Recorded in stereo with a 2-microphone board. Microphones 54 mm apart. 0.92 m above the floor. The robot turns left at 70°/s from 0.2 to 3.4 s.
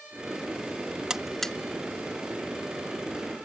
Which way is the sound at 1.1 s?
15° right (ahead or behind).